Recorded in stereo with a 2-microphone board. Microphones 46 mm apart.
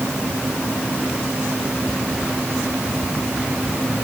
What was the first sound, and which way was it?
Only background noise.